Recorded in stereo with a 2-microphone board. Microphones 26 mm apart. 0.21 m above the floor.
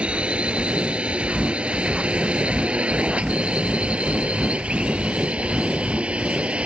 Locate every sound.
0.0 s a drone: 45° right (ahead or behind); by 6.7 s 50° right (ahead or behind)